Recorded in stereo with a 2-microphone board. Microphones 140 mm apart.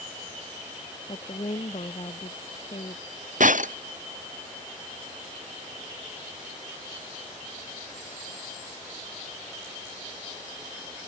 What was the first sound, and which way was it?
A woman speaking, 45° left (ahead or behind).